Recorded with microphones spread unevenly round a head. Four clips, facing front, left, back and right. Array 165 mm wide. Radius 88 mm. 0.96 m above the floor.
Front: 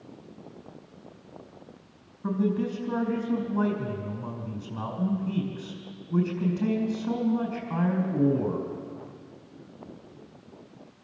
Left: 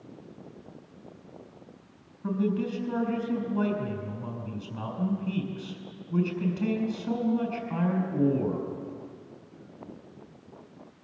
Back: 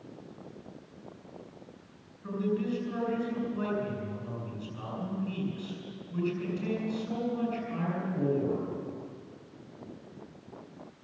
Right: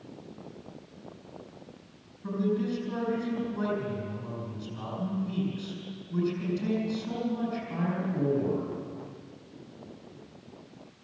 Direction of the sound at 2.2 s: 30° left.